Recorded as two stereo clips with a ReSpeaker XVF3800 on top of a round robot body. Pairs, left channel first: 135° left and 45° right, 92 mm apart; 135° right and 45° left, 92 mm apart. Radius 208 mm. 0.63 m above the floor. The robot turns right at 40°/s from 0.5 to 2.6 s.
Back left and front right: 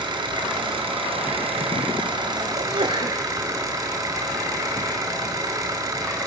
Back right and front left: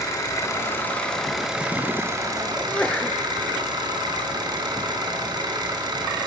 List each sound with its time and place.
0.0 s an engine running: 80° right, 3 m; by 6.3 s 5° left, 3 m
2.6 s a sneeze: 60° right, 2 m; by 3.2 s 55° right, 2 m